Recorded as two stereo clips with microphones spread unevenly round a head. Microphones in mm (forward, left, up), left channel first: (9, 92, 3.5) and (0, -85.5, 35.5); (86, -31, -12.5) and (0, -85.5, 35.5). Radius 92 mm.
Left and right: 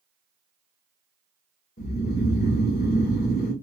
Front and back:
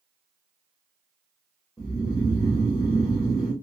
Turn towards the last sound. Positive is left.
turn(degrees=110)